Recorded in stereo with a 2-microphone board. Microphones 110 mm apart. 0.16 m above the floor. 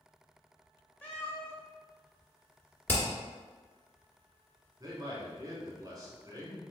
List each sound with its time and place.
1.0 s a cat meowing: 15° left (ahead or behind), 1.6 m
2.9 s hammering: 15° left (ahead or behind), 1.7 m
4.8 s a man speaking: 35° right (ahead or behind), 1.4 m